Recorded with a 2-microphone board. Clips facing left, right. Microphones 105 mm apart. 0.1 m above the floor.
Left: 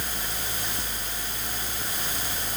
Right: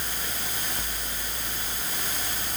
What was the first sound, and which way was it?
Only background noise.